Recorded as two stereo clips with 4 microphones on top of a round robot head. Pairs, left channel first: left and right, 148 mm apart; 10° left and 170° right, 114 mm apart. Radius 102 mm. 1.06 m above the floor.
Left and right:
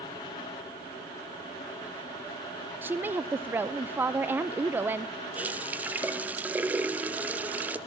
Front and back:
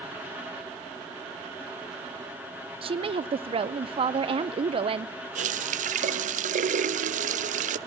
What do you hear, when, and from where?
2.8 s a woman speaking: 165° right, 0.5 m
5.3 s a running tap: 170° right, 0.6 m